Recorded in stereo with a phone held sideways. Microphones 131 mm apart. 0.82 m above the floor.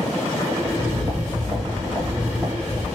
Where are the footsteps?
30° right (ahead or behind), 2.0 m; by 2.9 s centre (ahead or behind), 1.5 m.